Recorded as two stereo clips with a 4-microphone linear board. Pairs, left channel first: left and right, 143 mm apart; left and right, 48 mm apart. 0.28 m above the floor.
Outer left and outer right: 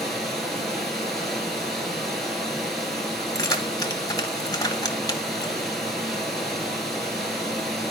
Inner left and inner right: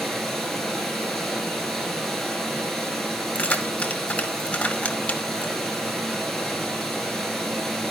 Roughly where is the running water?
Centre.